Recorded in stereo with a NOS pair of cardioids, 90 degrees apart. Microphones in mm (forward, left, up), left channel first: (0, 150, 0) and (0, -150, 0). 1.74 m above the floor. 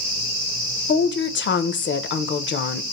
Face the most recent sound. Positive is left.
turn(degrees=40)